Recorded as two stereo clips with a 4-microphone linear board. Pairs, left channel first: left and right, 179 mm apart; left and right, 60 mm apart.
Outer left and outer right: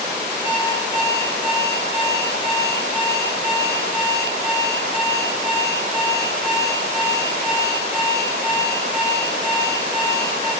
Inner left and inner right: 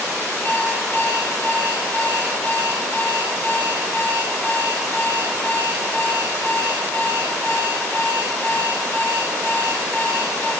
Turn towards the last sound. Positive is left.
turn(degrees=35)  # may be behind; listen again after turning